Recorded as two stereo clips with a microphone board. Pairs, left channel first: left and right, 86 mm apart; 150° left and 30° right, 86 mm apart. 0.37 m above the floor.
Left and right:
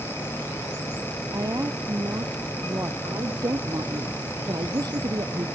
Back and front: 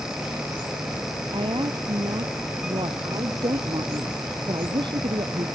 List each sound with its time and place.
1.3 s a woman speaking: 45° right; by 3.0 s 40° right
3.0 s a woman speaking: 50° right